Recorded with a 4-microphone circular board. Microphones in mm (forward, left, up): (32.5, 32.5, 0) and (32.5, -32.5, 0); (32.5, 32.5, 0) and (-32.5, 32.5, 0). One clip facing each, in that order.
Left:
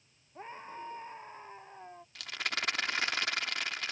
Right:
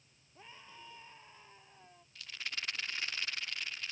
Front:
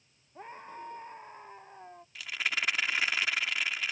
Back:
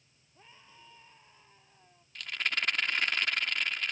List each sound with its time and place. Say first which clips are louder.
0.3 s a scream: left 11 dB, front 14 dB; 40° left
2.1 s a rattle: left 7 dB, even; 85° left